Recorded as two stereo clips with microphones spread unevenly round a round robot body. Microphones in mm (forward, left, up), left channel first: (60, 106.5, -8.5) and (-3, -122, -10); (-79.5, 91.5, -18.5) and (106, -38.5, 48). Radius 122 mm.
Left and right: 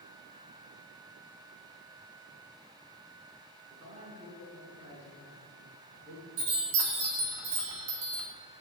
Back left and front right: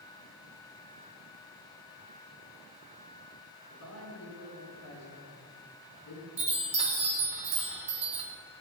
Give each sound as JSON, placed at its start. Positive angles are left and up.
{"t": 3.7, "sound": "a man speaking", "azimuth_deg": -175, "distance_m": 6.0}
{"t": 6.4, "sound": "a chime", "azimuth_deg": -105, "distance_m": 3.0}